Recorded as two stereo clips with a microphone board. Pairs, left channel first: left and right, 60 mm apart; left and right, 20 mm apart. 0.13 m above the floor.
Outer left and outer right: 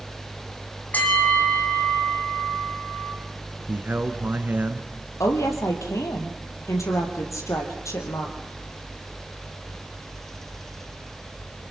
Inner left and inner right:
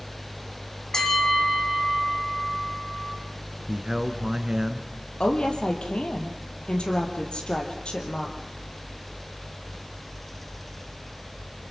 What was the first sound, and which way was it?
A bell, 30° left (ahead or behind).